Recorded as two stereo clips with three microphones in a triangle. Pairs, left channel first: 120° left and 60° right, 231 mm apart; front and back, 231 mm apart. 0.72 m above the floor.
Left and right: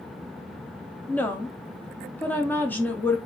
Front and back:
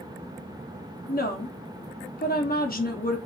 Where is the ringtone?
I don't hear a ringtone.